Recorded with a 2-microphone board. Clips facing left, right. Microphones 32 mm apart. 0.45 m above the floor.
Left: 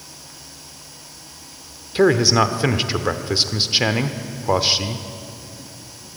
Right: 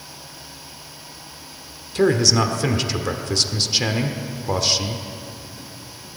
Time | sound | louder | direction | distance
1.9 | a man speaking | left 2 dB | 20° left (ahead or behind) | 1.1 m